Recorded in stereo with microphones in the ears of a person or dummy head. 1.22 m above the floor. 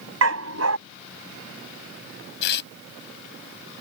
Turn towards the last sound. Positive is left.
turn(degrees=60)  # may be behind; listen again after turning